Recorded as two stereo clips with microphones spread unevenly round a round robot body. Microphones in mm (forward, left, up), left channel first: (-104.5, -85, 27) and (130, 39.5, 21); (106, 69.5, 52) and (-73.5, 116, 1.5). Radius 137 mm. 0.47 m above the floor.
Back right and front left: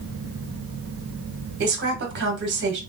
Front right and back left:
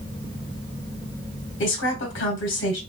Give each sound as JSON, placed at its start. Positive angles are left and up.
{"t": 1.6, "sound": "a woman speaking", "azimuth_deg": -10, "distance_m": 1.6}